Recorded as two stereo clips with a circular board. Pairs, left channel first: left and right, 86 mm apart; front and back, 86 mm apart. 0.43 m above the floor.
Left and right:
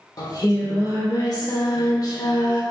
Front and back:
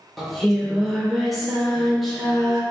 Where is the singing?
90° left, 0.6 m.